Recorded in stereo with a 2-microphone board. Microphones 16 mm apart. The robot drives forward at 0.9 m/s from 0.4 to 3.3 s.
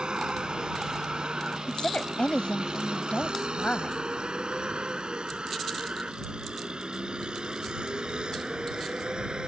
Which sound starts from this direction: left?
A woman speaking, at 1.7 s.